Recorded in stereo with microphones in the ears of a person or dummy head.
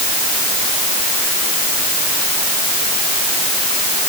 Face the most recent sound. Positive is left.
No sound to turn to.